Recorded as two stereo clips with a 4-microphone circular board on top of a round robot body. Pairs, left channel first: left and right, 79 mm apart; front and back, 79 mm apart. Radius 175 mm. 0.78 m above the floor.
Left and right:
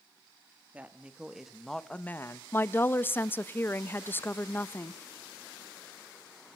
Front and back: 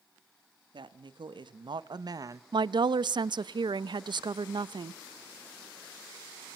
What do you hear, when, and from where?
0.7 s a woman speaking: 160° right, 2.5 m; by 2.4 s 140° left, 1.4 m
2.5 s a woman speaking: 155° left, 1.0 m